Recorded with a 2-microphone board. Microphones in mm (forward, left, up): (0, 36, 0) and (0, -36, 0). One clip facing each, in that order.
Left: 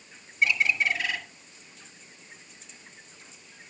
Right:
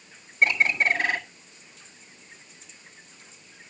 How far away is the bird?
About 1.6 m.